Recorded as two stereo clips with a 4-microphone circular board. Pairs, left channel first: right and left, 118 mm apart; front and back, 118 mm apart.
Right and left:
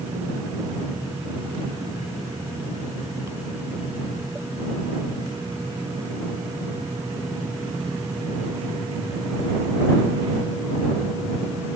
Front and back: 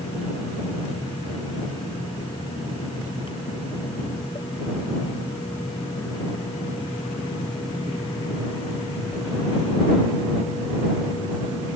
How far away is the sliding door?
No sliding door in this recording.